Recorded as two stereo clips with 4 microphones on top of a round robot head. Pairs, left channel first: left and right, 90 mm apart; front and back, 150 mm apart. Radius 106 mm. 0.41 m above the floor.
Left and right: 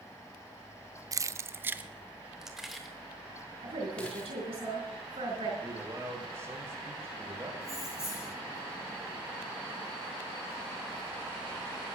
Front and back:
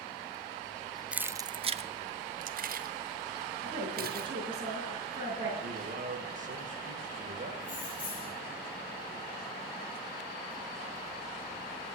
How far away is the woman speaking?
About 5.5 m.